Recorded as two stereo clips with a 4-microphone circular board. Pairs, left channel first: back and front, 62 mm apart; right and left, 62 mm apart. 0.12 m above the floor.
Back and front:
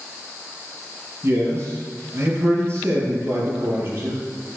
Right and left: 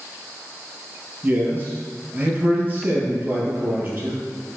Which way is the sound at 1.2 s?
35° left.